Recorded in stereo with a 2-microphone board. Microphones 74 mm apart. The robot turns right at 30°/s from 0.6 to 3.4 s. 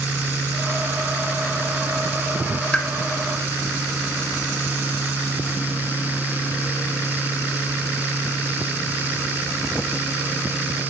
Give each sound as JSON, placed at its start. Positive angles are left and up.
{"t": 2.7, "sound": "a pop", "side_deg": 10, "distance_m": 0.6}